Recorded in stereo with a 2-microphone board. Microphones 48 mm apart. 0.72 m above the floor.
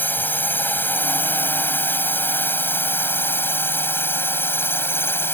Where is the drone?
40° left (ahead or behind); by 5.3 s 50° left (ahead or behind).